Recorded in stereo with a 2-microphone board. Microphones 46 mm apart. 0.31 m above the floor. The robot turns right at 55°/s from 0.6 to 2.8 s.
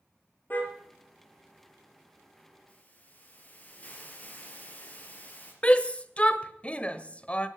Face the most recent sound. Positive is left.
turn(degrees=25)  # may be behind; listen again after turning